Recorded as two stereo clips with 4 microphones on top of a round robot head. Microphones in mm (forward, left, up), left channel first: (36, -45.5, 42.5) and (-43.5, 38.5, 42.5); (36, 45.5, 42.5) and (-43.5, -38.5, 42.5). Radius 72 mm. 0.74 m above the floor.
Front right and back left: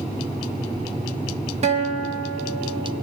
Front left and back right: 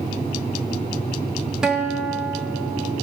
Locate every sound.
1.6 s a guitar: 145° left, 1.8 m